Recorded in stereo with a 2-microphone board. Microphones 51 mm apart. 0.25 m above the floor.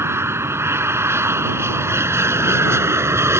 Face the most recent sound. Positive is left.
turn(degrees=-60)  # may be behind; listen again after turning